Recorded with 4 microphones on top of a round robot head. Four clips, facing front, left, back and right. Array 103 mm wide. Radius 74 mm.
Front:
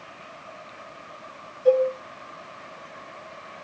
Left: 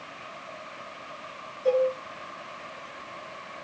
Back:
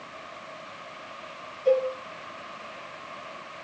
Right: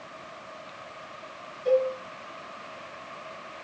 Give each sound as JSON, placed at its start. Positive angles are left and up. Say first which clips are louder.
{"t": 1.6, "sound": "a cowbell", "louder": "even, front 4 dB", "azimuth_deg": 40, "distance_m": 1.6}